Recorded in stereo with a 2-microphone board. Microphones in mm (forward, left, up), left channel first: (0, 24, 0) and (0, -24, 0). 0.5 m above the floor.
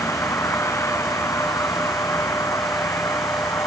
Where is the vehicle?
70° left (ahead or behind); by 3.7 s 85° left.